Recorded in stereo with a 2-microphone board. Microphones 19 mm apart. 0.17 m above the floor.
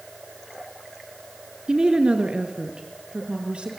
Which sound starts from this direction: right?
A woman speaking, at 1.7 s.